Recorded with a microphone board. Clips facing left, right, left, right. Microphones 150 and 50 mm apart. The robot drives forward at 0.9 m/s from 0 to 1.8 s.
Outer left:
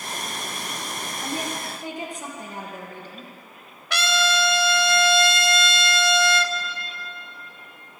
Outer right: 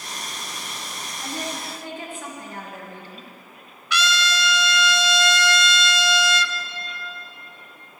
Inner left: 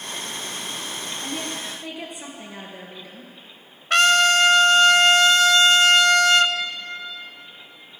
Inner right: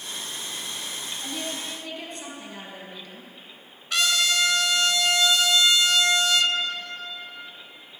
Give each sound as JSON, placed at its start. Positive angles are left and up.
{"t": 1.2, "sound": "a woman speaking", "side_deg": 20, "distance_m": 2.5}
{"t": 3.9, "sound": "a trumpet", "side_deg": 55, "distance_m": 0.5}